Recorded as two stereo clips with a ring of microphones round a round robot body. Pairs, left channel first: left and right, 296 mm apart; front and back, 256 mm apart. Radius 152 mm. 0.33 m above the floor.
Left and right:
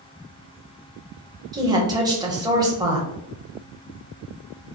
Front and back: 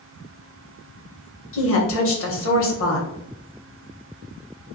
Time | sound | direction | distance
1.5 | a woman speaking | 15° right | 1.4 m